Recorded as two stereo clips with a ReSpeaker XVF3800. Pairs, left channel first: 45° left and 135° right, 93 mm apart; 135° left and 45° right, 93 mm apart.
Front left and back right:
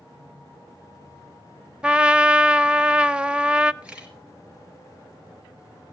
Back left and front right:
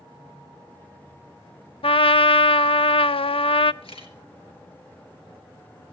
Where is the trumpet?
145° left, 0.6 m.